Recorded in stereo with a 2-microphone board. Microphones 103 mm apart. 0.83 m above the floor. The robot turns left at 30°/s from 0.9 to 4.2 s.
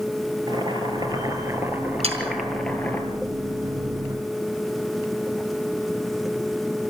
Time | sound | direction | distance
0.5 | boiling | 135° right | 3 m
2.0 | sawing | 80° right | 5 m